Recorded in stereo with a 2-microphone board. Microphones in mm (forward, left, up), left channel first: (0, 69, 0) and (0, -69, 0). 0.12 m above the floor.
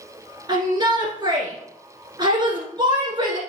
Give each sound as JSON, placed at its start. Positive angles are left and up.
{"t": 0.5, "sound": "a shout", "side_deg": -35, "distance_m": 1.7}